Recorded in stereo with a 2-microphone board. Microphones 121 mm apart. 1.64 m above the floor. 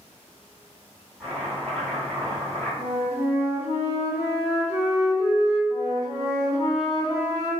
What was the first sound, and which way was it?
Chopping, 5° left (ahead or behind).